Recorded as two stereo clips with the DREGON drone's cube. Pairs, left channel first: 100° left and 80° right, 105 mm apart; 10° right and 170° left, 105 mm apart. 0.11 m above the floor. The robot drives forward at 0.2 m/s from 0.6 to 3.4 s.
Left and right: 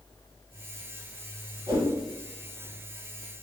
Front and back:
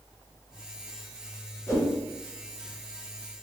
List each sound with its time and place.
1.7 s a whoosh: 65° right, 1.4 m; by 1.9 s 70° right, 1.4 m